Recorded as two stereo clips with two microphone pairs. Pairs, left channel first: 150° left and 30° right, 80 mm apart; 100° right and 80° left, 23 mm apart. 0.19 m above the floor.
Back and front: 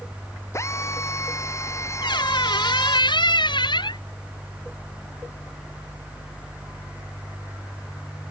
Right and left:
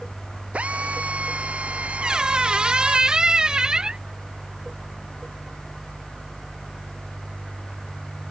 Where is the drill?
100° left.